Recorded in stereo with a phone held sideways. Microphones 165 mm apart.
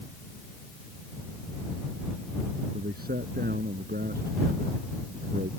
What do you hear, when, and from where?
2.7 s a man speaking: 75° right (ahead or behind)